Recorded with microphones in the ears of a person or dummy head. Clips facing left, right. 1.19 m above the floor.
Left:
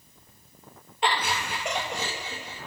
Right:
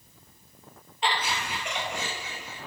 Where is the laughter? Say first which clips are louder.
Left 2 dB; 45° left (ahead or behind), 2.5 m; by 2.6 s 25° left (ahead or behind), 2.5 m.